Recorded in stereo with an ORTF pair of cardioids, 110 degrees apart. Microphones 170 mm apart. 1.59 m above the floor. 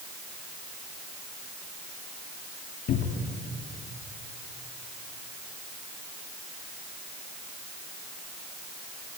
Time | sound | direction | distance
2.9 | a cupboard door | 65° left | 2.5 m